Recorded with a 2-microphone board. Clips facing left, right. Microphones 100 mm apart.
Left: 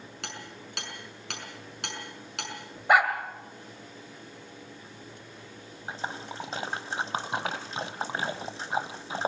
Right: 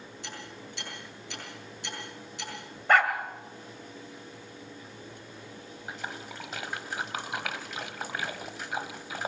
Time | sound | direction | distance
0.2 | hammering | 75° left (ahead or behind) | 6 m
2.9 | a dog barking | 10° left (ahead or behind) | 2 m
5.9 | a splash | 30° left (ahead or behind) | 1.1 m